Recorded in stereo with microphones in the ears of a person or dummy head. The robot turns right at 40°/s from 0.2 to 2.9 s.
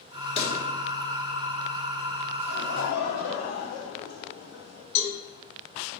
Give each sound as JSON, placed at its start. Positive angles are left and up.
{"t": 0.4, "sound": "a pop", "side_deg": 30, "distance_m": 1.4}
{"t": 2.5, "sound": "laughter", "side_deg": 85, "distance_m": 2.0}
{"t": 5.0, "sound": "a cowbell", "side_deg": 65, "distance_m": 1.6}